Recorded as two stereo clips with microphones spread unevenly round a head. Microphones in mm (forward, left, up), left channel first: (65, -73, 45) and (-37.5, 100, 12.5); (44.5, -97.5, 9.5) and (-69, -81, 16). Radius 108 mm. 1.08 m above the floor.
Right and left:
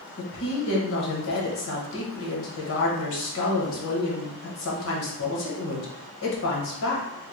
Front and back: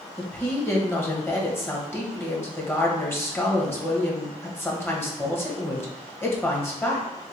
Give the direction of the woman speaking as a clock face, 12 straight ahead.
3 o'clock.